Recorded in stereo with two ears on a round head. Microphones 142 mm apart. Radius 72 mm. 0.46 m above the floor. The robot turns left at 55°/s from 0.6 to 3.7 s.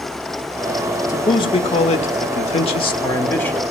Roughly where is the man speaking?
Behind left.